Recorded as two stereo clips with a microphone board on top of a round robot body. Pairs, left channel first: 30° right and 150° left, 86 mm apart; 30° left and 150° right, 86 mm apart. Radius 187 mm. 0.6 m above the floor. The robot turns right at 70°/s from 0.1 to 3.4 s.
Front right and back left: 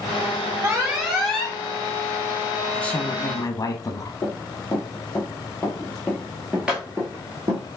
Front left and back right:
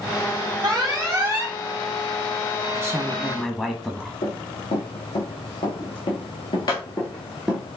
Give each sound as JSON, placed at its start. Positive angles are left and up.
{"t": 0.6, "sound": "an alarm", "azimuth_deg": -160, "distance_m": 2.5}
{"t": 2.7, "sound": "a woman speaking", "azimuth_deg": -95, "distance_m": 0.9}
{"t": 4.2, "sound": "running footsteps", "azimuth_deg": 45, "distance_m": 2.5}